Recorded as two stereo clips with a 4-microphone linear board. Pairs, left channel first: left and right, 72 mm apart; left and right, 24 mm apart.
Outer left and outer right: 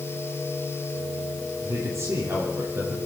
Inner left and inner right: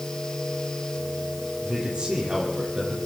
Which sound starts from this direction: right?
A man speaking, at 1.6 s.